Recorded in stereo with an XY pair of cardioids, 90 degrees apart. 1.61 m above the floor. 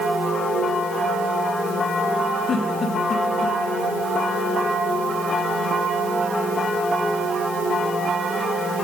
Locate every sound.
2.5 s a giggle: 60° left, 2.5 m